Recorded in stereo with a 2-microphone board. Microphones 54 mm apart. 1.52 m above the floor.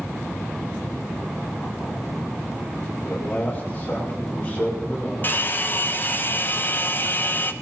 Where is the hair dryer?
35° left (ahead or behind), 1.3 m.